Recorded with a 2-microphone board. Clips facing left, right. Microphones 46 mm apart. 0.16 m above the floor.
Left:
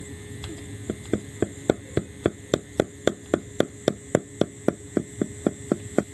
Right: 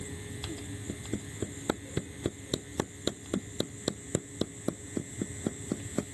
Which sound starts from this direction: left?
Hammering, at 0.9 s.